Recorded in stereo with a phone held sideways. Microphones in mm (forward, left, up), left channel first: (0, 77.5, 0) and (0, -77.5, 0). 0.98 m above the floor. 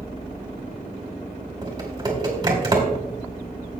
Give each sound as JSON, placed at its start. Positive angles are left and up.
{"t": 1.6, "sound": "typing on a keyboard", "side_deg": -25, "distance_m": 2.0}